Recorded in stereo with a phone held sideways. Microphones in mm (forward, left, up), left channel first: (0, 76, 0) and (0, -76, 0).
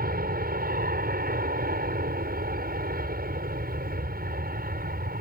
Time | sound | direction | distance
0.0 | an aircraft | 75° right (ahead or behind) | ?